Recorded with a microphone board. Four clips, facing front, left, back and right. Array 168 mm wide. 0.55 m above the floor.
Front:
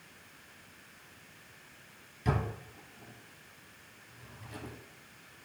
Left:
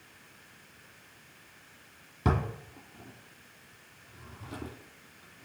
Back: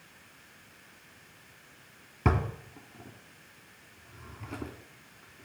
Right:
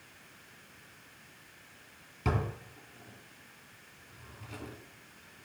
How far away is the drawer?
About 3 m.